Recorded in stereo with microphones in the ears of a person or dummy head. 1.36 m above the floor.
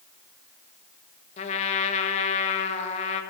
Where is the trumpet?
35° left (ahead or behind), 1.3 m.